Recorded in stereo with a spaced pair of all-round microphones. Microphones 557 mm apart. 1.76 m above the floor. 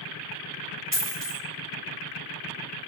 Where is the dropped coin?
20° left (ahead or behind), 1.6 m.